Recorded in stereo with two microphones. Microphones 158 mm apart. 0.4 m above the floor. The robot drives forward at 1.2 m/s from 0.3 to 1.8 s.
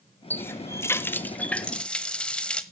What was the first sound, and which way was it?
A running tap, 10° left (ahead or behind).